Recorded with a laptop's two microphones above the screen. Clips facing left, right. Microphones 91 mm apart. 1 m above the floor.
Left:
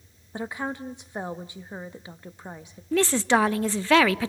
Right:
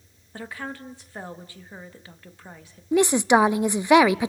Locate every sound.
0.3 s a woman speaking: 20° left (ahead or behind), 1.6 m
2.9 s a woman speaking: 15° right (ahead or behind), 0.6 m